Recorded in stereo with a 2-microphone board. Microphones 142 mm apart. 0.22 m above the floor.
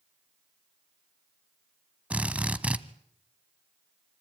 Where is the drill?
10° right (ahead or behind), 1.2 m.